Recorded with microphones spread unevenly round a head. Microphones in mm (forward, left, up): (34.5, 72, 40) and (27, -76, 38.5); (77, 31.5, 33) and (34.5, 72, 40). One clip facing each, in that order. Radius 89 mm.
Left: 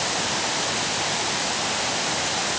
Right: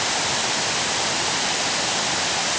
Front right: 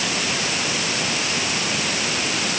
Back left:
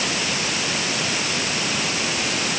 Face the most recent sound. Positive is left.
No sound to turn to.